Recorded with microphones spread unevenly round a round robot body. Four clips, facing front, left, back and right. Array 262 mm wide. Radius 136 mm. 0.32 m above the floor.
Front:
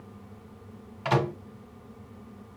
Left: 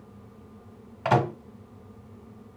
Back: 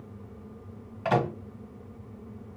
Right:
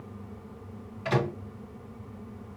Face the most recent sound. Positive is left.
turn(degrees=85)